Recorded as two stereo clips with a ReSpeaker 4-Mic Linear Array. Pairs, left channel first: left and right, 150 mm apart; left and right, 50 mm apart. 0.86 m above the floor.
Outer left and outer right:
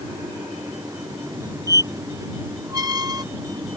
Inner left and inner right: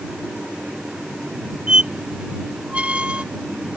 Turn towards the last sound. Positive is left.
turn(degrees=-25)  # may be behind; listen again after turning